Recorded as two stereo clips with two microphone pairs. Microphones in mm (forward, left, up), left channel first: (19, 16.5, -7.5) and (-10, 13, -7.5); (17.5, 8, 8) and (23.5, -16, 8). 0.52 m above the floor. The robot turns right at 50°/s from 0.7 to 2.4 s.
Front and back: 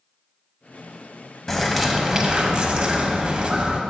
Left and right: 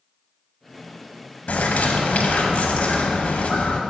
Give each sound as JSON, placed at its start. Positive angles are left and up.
{"t": 1.5, "sound": "a bird", "azimuth_deg": 85, "distance_m": 0.7}